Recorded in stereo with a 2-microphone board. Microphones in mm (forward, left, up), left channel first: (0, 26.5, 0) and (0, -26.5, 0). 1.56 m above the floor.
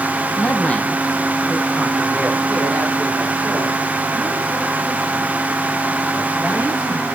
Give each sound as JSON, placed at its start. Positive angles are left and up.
{"t": 0.4, "sound": "a man speaking", "side_deg": 35, "distance_m": 0.8}